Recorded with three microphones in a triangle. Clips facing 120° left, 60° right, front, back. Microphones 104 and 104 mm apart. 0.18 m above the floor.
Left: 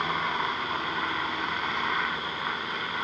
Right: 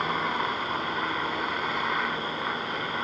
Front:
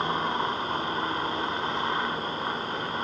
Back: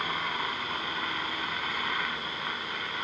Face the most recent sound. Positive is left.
turn(degrees=25)